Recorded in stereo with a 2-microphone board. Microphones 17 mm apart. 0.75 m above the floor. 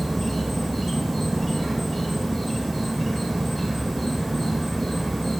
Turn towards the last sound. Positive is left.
turn(degrees=-5)  # may be behind; listen again after turning